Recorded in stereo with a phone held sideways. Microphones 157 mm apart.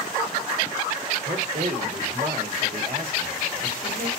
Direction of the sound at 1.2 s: 65° right (ahead or behind).